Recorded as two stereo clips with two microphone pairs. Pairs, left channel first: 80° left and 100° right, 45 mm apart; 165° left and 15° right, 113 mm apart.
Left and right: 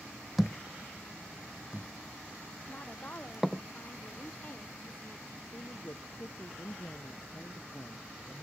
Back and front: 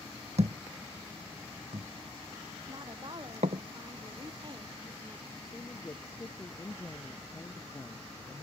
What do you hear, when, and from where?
0.4 s a thud: 15° right
2.7 s a woman speaking: 30° left
5.4 s a woman speaking: 105° left